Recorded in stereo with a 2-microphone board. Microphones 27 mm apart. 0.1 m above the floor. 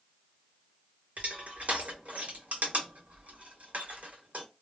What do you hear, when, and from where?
1.2 s crushing: 70° right (ahead or behind), 0.9 m